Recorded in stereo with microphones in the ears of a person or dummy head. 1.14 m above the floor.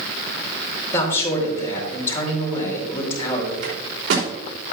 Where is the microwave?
85° right, 3 m.